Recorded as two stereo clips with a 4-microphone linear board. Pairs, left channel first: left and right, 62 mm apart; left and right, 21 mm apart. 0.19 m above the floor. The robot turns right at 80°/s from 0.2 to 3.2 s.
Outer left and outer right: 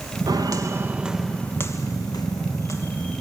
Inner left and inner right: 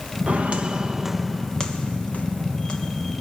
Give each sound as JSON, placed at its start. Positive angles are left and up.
{"t": 0.3, "sound": "footsteps", "side_deg": -85, "distance_m": 1.3}